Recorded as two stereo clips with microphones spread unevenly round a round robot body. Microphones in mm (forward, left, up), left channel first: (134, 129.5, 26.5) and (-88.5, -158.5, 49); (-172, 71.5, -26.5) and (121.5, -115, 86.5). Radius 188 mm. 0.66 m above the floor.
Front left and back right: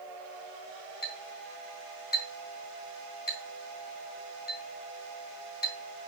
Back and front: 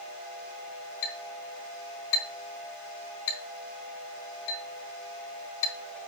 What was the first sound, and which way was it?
A clink, 120° left.